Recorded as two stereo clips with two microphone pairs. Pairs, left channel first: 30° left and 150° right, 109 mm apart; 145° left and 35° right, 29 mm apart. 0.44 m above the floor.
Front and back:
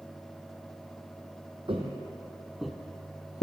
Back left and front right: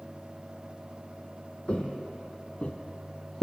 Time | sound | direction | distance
1.7 | footsteps | 175° right | 0.8 m